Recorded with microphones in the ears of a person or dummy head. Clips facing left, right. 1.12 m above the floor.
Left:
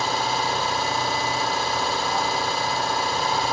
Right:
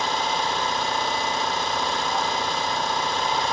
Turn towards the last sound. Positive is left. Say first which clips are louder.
# left 1 dB
turn(degrees=5)  # may be behind; listen again after turning